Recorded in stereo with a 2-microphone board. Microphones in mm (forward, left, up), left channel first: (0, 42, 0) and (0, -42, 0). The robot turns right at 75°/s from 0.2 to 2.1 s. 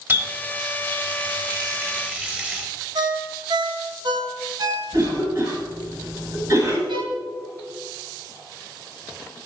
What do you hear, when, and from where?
0.1 s a running tap: 30° right (ahead or behind), 1.1 m; by 2.7 s 10° right (ahead or behind), 1.1 m
3.0 s a ringtone: 65° right (ahead or behind), 0.8 m
4.9 s a cough: 40° right (ahead or behind), 1.2 m
6.9 s a violin: 70° right (ahead or behind), 0.9 m